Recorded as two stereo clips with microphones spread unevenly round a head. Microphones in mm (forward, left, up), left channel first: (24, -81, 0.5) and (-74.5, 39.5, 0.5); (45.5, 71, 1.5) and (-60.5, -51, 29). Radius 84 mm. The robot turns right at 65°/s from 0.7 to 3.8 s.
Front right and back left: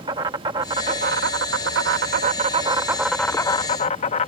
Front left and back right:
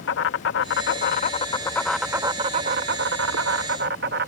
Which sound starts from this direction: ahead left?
An insect, at 0.0 s.